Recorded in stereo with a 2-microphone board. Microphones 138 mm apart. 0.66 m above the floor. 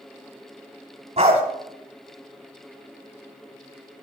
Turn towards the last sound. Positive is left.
turn(degrees=-55)  # may be behind; listen again after turning